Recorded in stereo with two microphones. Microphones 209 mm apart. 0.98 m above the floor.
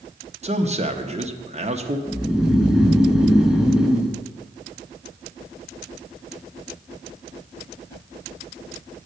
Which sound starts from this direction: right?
A man speaking, at 0.4 s.